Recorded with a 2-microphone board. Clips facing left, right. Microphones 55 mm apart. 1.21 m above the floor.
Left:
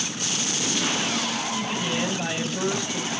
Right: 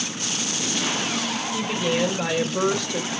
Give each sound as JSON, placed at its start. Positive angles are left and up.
{"t": 1.5, "sound": "a woman speaking", "side_deg": -80, "distance_m": 4.5}